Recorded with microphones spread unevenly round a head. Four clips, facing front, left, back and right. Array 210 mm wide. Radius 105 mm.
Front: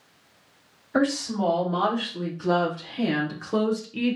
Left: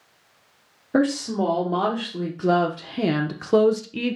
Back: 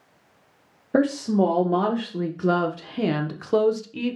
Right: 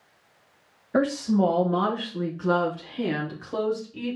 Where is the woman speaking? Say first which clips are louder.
Left 1 dB, back 4 dB; 160° left, 1.5 m; by 4.2 s 75° left, 0.8 m.